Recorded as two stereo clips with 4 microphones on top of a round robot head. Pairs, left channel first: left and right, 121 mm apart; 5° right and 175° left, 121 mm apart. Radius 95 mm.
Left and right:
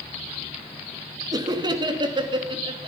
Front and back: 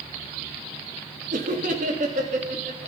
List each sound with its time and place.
1.3 s laughter: 150° right, 2 m; by 2.9 s 135° right, 3 m